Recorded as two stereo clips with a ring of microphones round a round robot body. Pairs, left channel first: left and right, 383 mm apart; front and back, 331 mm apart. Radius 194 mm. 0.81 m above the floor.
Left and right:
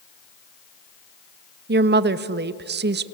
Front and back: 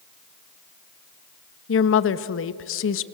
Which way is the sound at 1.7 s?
35° right.